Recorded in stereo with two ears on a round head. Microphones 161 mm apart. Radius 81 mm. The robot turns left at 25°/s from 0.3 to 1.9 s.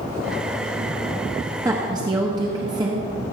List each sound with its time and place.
1.6 s a woman speaking: 15° right (ahead or behind), 1.1 m; by 3.1 s 20° right (ahead or behind), 1.1 m